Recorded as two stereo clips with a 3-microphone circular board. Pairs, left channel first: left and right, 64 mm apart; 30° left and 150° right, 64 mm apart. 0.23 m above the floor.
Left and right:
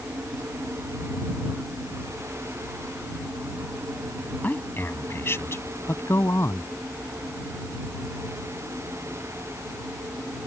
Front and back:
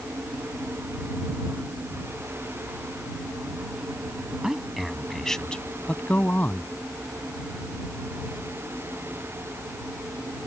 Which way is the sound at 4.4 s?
135° left.